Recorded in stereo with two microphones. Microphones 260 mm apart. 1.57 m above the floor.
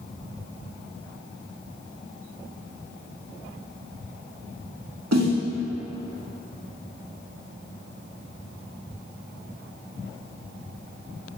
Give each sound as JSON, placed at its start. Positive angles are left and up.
{"t": 5.1, "sound": "a snare drum", "side_deg": -85, "distance_m": 0.8}